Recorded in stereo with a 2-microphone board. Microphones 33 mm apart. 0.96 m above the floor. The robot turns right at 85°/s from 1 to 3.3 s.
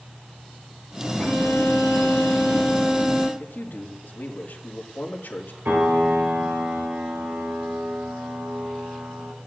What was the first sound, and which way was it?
A violin, 40° left.